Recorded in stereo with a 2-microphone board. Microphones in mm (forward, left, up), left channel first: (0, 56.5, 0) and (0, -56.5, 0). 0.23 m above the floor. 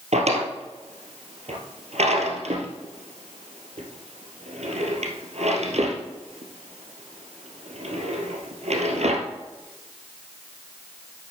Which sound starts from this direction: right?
A drawer, at 0.1 s.